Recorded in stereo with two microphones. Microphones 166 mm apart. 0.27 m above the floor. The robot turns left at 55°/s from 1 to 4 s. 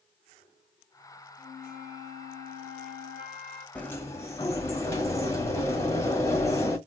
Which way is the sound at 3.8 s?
5° left (ahead or behind).